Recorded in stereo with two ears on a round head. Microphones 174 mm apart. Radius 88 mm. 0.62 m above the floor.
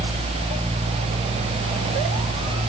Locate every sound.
Only background noise.